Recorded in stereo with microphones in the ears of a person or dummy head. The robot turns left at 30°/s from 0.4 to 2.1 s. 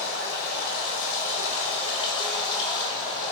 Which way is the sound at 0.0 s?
85° left.